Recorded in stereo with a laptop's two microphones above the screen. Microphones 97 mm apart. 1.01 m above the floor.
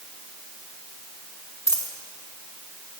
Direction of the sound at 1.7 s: 35° left (ahead or behind).